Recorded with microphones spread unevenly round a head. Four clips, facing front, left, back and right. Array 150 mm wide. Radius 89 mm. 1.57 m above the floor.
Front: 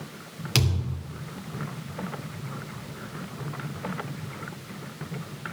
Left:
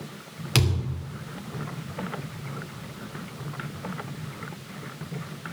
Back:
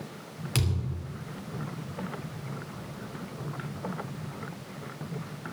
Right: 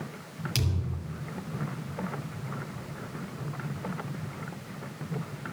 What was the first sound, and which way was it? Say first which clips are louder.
A thud: left 9 dB, front 4 dB; 60° left.